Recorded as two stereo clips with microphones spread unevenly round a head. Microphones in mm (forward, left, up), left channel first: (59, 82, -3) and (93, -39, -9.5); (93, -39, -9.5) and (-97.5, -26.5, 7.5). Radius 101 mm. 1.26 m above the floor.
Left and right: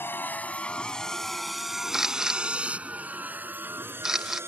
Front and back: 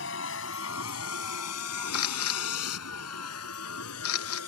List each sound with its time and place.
0.0 s a vehicle: 35° left; by 4.5 s 5° right
1.9 s a camera shutter: 15° left